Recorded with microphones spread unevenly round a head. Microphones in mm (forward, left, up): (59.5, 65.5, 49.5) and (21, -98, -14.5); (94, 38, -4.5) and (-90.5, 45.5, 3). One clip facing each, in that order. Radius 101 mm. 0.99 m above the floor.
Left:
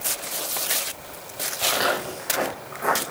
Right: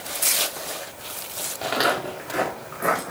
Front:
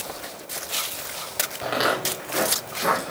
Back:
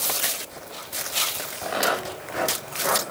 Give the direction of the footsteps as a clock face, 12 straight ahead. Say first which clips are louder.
Right 1 dB, front 1 dB; 2 o'clock.